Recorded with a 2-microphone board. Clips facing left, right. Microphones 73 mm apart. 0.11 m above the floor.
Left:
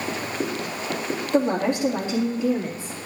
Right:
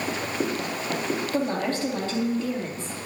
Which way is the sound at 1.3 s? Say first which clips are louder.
Left 8 dB; 25° left (ahead or behind).